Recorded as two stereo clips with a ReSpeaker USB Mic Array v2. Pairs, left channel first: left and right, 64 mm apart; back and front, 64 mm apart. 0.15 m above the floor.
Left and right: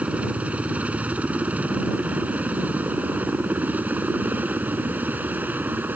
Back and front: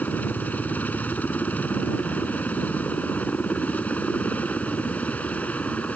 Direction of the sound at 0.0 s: 140° right.